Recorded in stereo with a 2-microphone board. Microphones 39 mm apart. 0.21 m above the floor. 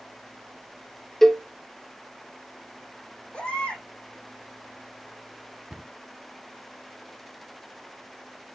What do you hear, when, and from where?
1.2 s a cowbell: 5° left (ahead or behind), 0.9 m
3.3 s a baby crying: 30° left (ahead or behind), 4 m
5.7 s a cupboard door: 20° right (ahead or behind), 0.6 m